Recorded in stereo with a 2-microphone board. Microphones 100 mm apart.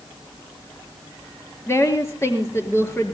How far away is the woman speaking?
About 4 m.